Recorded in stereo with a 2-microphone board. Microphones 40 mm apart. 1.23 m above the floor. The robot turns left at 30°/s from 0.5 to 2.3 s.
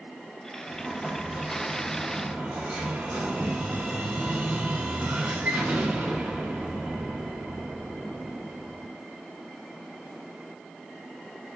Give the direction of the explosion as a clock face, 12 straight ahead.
11 o'clock.